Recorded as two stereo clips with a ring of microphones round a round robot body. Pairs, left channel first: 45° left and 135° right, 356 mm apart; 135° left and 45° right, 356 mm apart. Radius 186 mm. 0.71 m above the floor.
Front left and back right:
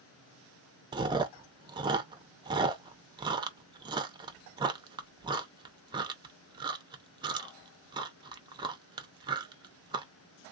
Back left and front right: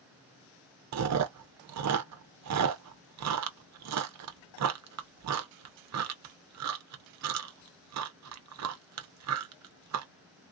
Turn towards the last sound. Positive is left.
turn(degrees=-60)